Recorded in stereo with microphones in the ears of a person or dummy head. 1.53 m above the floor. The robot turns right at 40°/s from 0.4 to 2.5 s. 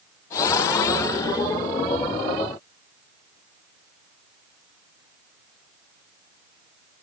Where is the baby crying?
I don't hear a baby crying.